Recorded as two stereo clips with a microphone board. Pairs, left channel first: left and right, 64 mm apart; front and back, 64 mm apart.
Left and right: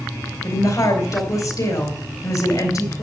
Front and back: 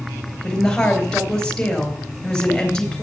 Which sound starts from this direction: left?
A woman speaking, at 0.4 s.